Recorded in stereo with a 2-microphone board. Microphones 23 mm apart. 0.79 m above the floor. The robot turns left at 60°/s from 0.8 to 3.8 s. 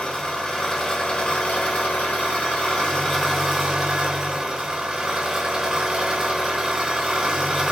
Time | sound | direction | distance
0.0 | an engine running | 155° left | 3.5 m